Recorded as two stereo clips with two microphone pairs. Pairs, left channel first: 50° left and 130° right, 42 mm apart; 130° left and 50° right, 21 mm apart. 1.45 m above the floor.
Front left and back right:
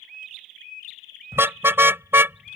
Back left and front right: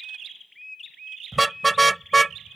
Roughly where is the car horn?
Behind right.